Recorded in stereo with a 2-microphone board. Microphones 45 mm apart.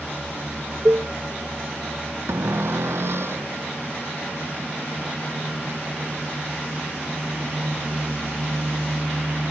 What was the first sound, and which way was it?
A cowbell, 45° right (ahead or behind).